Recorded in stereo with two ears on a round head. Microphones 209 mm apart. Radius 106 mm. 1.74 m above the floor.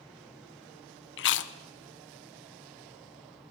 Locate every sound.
1.2 s chewing: 55° left (ahead or behind), 0.6 m